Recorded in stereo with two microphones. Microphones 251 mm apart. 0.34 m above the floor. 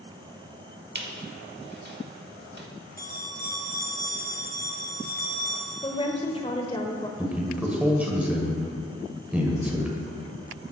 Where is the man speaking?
5° right (ahead or behind), 1.5 m.